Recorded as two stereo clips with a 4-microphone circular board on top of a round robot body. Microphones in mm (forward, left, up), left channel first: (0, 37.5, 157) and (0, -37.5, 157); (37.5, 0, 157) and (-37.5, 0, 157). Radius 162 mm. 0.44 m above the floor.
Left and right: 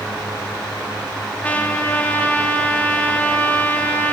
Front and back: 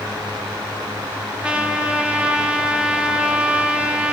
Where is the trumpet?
125° left, 1.0 m.